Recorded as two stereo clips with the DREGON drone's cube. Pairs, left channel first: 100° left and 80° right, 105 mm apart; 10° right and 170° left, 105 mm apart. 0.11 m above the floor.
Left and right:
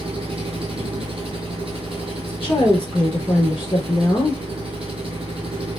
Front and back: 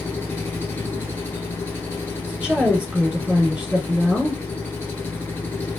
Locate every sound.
0.0 s an engine running: 75° right, 1.2 m
2.2 s a woman speaking: 120° left, 1.1 m